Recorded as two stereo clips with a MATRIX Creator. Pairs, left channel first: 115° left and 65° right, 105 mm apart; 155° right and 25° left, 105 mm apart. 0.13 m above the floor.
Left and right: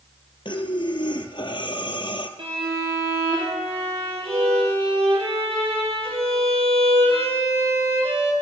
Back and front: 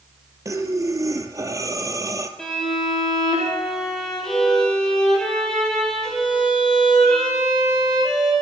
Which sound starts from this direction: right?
A violin, at 2.4 s.